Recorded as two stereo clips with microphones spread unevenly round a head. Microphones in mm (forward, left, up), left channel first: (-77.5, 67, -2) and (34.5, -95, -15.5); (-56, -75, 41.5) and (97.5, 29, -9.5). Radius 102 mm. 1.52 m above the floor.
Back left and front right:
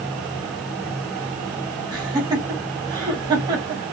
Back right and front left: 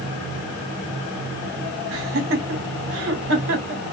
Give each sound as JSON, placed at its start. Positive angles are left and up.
{"t": 1.9, "sound": "laughter", "azimuth_deg": 15, "distance_m": 1.4}